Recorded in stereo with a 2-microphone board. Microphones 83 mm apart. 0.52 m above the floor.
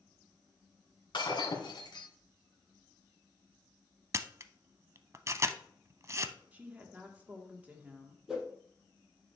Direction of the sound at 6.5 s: 20° right (ahead or behind).